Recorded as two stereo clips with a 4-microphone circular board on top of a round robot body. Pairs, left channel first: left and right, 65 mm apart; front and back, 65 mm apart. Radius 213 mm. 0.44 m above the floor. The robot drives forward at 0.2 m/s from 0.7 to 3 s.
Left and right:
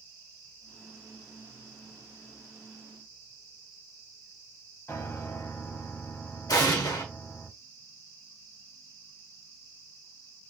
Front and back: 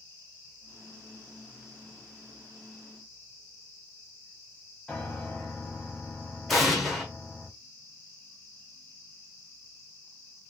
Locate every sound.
4.9 s a piano: 75° left, 1.7 m
6.5 s an explosion: 85° left, 1.2 m